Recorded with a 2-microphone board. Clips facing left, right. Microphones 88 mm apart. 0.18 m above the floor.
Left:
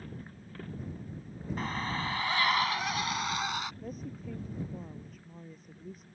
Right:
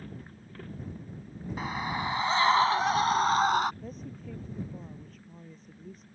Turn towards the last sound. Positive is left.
turn(degrees=5)  # may be behind; listen again after turning